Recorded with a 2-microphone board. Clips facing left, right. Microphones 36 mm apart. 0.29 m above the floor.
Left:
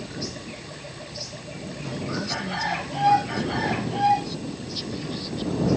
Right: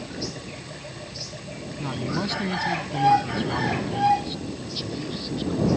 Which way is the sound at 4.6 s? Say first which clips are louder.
Right 1 dB; 10° right (ahead or behind).